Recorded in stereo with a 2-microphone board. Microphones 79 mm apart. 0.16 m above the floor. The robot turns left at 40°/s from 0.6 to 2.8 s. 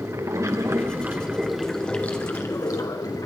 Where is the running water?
140° right, 1.9 m; by 3.3 s 130° left, 1.9 m.